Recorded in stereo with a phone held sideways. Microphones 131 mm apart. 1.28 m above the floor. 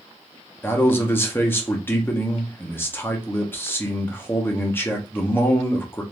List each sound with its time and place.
0.6 s a man speaking: 15° left (ahead or behind), 0.8 m